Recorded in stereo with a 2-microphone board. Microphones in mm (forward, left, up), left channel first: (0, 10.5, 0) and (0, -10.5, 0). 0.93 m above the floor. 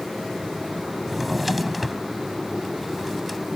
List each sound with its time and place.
1.1 s a drawer: 5° right (ahead or behind)